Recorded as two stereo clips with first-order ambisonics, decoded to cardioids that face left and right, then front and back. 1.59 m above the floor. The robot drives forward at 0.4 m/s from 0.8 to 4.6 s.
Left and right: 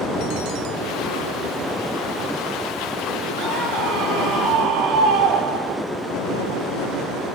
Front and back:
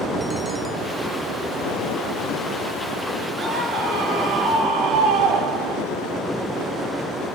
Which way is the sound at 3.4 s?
130° right.